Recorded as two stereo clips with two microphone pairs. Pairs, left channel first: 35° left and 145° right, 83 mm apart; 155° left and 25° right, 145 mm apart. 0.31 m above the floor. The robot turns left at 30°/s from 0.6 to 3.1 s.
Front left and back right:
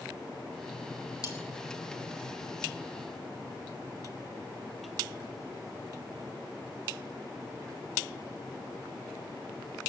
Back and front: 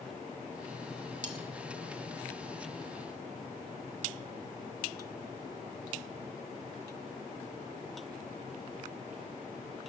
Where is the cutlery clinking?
Straight ahead, 1.8 m; by 1.4 s 5° right, 1.8 m.